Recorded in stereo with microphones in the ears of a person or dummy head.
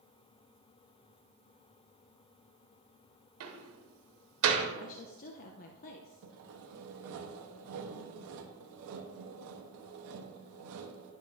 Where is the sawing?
65° right (ahead or behind), 1.0 m.